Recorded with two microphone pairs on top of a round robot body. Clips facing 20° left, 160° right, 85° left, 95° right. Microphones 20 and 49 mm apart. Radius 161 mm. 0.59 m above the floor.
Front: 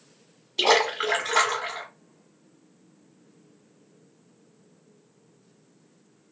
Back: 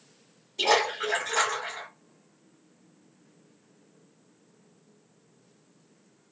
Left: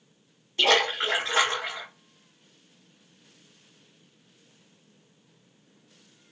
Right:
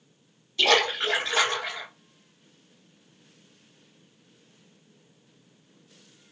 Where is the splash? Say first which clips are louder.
Front 3 dB, even; 40° left, 0.9 m.